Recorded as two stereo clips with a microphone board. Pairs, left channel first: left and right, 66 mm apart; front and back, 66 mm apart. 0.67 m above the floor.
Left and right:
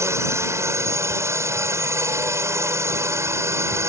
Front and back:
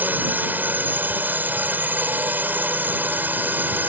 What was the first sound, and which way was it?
A drone, 120° right.